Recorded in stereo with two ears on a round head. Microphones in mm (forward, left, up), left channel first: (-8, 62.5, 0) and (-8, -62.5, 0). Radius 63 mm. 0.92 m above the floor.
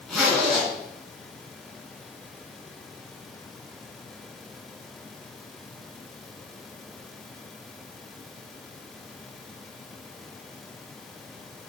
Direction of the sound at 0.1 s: 5° left (ahead or behind).